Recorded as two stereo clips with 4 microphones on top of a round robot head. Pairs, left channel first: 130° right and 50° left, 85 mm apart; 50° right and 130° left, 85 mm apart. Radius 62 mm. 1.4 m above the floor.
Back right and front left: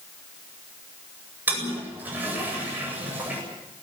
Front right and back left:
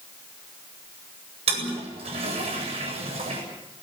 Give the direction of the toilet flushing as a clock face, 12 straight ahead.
8 o'clock.